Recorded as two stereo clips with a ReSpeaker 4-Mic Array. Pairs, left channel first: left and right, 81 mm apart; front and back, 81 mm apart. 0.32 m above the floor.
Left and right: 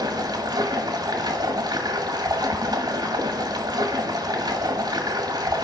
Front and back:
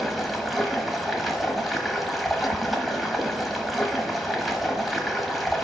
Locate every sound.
0.0 s running water: 90° right, 1.4 m